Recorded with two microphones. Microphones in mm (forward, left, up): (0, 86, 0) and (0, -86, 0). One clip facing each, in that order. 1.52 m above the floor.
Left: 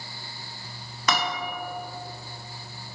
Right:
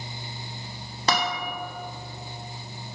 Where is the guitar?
30° right (ahead or behind), 1.4 m.